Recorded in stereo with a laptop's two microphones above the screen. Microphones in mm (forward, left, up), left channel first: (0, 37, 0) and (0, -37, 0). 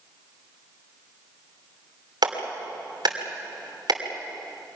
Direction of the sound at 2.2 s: 70° right (ahead or behind).